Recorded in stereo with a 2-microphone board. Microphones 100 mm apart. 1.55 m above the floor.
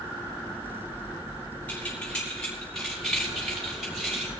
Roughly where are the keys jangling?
Centre.